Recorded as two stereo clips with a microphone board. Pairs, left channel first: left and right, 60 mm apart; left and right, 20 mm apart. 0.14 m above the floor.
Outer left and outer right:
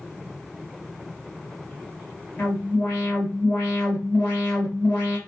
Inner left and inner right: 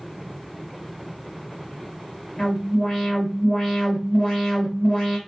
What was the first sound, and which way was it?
An alarm, 25° left (ahead or behind).